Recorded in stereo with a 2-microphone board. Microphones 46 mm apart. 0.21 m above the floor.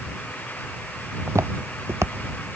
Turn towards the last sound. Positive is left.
turn(degrees=-85)